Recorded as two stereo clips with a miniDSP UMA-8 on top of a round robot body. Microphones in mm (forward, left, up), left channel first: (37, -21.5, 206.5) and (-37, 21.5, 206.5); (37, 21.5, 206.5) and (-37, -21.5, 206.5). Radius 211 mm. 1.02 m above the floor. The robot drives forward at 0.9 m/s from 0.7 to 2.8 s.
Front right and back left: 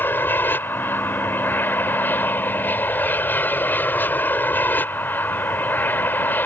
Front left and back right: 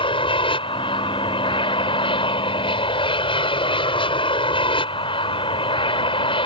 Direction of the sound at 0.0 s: 35° left.